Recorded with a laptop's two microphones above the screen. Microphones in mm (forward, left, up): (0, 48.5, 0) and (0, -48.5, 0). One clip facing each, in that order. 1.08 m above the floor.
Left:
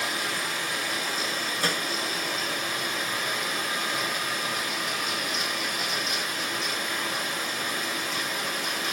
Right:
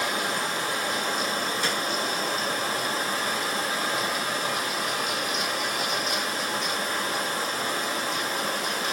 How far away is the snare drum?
About 2.5 m.